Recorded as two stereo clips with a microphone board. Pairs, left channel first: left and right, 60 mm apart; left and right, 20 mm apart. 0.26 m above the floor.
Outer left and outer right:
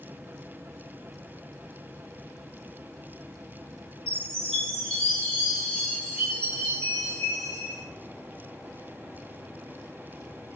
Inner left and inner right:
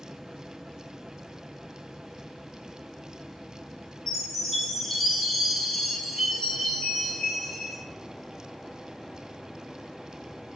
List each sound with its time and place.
4.1 s a chime: 15° left (ahead or behind), 1.6 m